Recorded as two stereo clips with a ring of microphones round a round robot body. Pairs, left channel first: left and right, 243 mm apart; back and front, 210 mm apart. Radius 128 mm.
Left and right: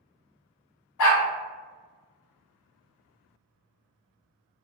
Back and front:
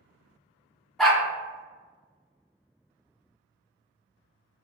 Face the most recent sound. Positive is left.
turn(degrees=90)